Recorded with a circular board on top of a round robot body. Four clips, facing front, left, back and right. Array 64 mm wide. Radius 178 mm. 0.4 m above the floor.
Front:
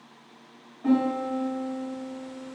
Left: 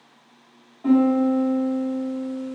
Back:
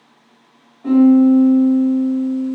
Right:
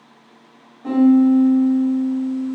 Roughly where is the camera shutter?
I don't hear a camera shutter.